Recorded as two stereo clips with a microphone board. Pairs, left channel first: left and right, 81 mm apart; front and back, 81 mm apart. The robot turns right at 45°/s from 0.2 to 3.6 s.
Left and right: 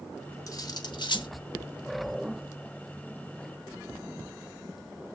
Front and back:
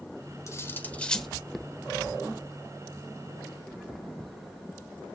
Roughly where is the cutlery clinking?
Ahead left.